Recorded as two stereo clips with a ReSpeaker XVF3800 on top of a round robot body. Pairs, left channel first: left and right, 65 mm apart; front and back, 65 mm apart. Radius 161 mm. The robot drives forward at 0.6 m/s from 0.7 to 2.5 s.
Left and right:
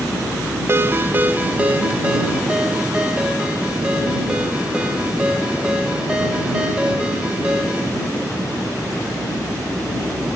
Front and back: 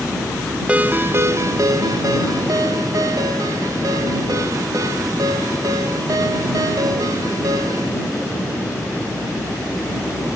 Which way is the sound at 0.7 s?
115° right.